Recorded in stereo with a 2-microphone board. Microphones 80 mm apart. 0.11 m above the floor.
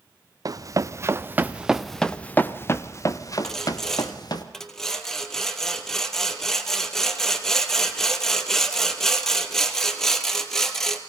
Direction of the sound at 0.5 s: 55° right (ahead or behind).